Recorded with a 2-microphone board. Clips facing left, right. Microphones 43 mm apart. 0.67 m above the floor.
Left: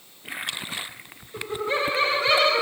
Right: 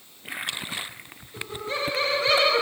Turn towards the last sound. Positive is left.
turn(degrees=-5)  # may be behind; listen again after turning